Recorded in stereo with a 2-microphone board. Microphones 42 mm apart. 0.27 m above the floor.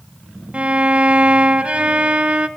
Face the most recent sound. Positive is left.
turn(degrees=-30)  # may be behind; listen again after turning